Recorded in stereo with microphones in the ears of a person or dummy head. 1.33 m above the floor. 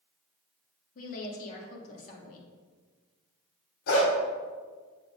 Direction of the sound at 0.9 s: 45° left (ahead or behind).